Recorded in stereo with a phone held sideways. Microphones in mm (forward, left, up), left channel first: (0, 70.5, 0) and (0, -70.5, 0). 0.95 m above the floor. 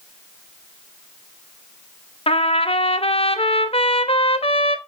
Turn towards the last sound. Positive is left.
turn(degrees=45)  # may be behind; listen again after turning